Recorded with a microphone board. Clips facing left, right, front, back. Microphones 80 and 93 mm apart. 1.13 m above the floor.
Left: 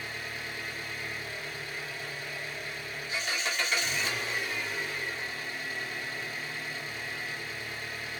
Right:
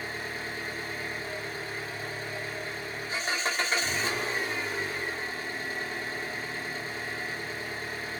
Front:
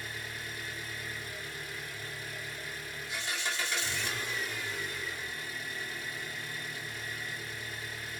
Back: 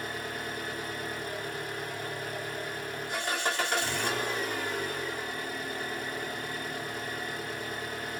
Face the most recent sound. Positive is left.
turn(degrees=-145)